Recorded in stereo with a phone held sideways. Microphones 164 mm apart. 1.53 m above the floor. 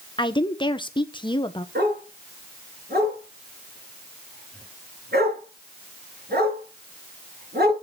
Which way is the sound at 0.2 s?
30° left (ahead or behind).